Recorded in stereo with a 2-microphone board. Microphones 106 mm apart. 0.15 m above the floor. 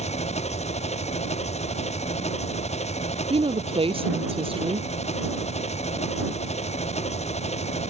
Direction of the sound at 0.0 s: 80° left.